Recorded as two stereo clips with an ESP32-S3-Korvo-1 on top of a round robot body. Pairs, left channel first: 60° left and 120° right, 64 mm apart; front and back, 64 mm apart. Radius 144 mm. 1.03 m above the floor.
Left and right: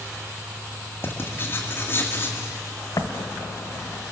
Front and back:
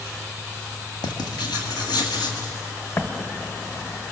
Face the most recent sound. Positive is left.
turn(degrees=45)